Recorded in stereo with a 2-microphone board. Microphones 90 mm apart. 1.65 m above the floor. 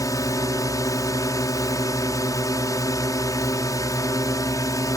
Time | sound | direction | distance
0.0 | a drone | 40° left (ahead or behind) | ?